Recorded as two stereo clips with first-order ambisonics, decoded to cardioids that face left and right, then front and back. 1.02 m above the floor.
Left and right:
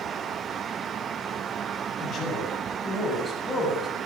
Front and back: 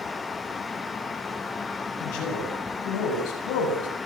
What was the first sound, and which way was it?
A man speaking, 30° left.